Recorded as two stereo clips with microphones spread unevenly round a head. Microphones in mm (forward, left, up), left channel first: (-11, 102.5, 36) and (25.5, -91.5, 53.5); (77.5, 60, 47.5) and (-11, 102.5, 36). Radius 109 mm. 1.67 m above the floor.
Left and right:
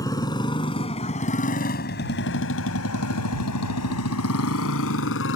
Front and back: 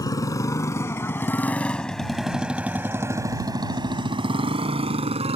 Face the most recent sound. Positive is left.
turn(degrees=135)